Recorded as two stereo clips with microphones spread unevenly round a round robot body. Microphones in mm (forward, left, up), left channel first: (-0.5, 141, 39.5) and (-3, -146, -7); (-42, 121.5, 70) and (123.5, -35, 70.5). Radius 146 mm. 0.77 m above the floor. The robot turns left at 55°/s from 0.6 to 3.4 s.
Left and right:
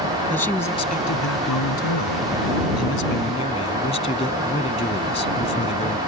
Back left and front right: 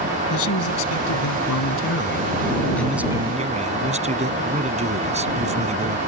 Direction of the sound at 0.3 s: 175° left.